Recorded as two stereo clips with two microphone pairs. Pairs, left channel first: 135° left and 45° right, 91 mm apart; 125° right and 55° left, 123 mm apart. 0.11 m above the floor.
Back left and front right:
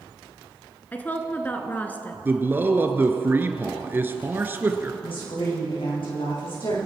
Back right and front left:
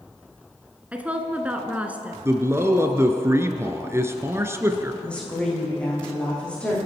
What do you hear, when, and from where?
0.9 s a woman speaking: 110° left, 1.3 m
2.2 s a man speaking: 5° left, 1.3 m
5.0 s a woman speaking: 155° left, 6.5 m